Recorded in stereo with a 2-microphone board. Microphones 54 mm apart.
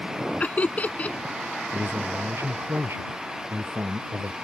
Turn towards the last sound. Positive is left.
turn(degrees=-50)  # may be behind; listen again after turning